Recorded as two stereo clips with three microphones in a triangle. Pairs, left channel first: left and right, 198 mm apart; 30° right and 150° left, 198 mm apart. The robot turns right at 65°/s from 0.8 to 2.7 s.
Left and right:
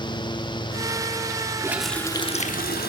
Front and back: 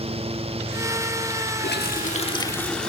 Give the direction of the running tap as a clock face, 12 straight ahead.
1 o'clock.